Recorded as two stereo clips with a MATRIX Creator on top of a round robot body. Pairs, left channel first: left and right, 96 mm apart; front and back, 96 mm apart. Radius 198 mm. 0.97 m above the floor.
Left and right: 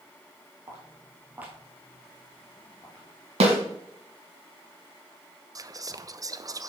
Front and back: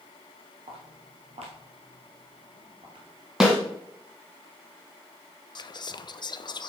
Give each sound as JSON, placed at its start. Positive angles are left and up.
{"t": 0.7, "sound": "footsteps", "azimuth_deg": -150, "distance_m": 1.9}
{"t": 3.4, "sound": "a snare drum", "azimuth_deg": -95, "distance_m": 1.7}
{"t": 5.5, "sound": "whispering", "azimuth_deg": -40, "distance_m": 0.8}